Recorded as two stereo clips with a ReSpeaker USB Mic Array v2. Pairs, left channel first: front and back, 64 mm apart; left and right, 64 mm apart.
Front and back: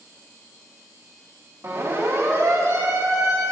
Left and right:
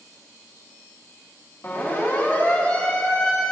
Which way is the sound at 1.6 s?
140° left.